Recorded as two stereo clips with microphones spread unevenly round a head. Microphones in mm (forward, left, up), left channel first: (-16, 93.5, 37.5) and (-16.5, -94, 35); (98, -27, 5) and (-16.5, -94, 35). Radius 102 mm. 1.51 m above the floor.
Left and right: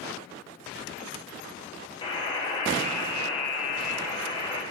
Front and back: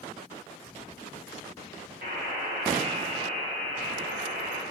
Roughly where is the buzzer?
Behind left.